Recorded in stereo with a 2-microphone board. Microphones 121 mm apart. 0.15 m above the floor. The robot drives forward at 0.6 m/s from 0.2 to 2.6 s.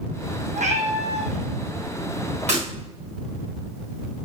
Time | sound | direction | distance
0.6 | a cat meowing | 80° right | 1.3 m
2.5 | breaking glass | 65° right (ahead or behind) | 4.5 m